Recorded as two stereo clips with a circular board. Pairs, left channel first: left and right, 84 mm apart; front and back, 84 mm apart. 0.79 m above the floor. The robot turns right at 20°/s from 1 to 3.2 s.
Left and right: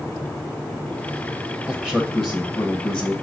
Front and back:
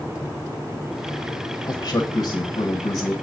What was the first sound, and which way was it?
A man speaking, straight ahead.